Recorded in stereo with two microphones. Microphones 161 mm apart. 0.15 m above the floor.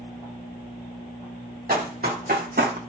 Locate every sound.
1.7 s running footsteps: 55° right (ahead or behind), 1.2 m; by 2.8 s 70° right (ahead or behind), 0.6 m